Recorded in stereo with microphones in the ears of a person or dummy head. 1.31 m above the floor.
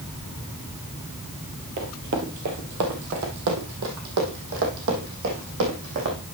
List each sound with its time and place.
1.8 s running footsteps: 40° right (ahead or behind), 1.7 m; by 6.2 s 60° right (ahead or behind), 4 m